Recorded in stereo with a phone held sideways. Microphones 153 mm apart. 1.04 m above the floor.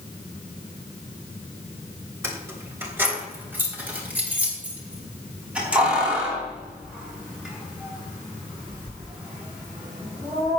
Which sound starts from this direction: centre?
Keys jangling, at 2.2 s.